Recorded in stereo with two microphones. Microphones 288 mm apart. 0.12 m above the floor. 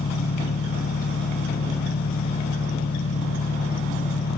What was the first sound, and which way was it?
An engine running, 55° left (ahead or behind).